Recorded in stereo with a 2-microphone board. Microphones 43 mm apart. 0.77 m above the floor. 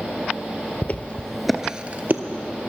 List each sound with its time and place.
0.8 s footsteps: 45° left (ahead or behind), 1.1 m; by 2.2 s 50° right (ahead or behind), 1.1 m